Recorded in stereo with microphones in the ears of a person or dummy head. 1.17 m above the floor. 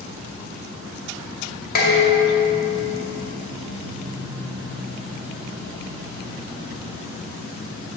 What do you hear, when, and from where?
1.8 s dishes clattering: 50° left (ahead or behind), 1.9 m